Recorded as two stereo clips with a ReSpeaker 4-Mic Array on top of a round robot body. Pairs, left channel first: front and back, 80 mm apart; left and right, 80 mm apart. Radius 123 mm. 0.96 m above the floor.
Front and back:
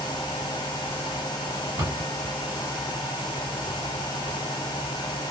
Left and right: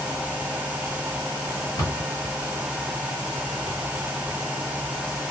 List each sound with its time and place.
1.8 s a cupboard door: 135° left, 1.8 m